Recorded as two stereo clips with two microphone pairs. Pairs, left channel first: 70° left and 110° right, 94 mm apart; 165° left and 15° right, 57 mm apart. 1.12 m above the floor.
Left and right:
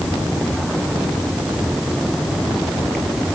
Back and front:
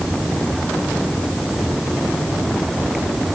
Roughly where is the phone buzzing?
No phone buzzing in this recording.